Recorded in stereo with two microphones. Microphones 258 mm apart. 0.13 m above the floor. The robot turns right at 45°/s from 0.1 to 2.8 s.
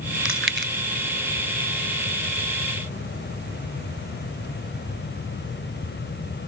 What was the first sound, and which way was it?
Chewing, 55° right (ahead or behind).